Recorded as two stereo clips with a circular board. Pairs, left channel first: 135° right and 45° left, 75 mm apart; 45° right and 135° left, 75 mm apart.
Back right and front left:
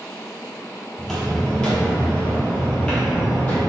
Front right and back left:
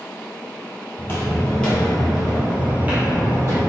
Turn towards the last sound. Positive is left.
turn(degrees=165)